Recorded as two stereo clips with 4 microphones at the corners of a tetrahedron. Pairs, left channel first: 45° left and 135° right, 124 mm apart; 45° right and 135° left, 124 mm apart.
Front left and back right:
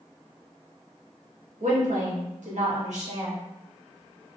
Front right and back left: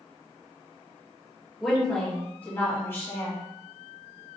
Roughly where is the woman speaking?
Behind right.